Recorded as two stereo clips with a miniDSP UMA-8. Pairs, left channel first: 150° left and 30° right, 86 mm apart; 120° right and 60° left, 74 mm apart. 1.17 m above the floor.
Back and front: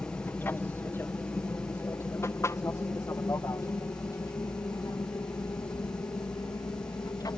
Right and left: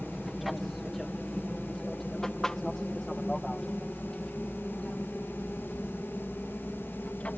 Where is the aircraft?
145° left; by 7.4 s 170° left.